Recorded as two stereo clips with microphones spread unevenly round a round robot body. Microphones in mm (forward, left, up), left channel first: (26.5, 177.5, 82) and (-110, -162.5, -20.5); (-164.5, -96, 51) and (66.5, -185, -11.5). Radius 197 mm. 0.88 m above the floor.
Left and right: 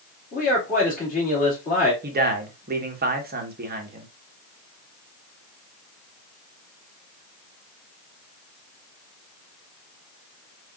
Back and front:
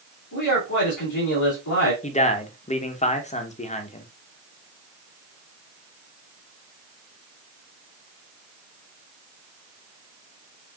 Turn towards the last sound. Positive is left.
turn(degrees=-130)